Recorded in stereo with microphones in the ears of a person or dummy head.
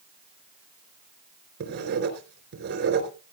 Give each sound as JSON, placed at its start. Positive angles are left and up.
{"t": 1.6, "sound": "writing", "side_deg": -55, "distance_m": 4.0}